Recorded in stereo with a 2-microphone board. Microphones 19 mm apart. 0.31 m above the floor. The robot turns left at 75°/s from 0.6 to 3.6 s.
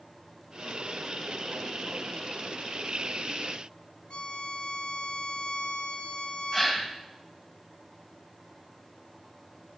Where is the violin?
60° left (ahead or behind), 0.9 m.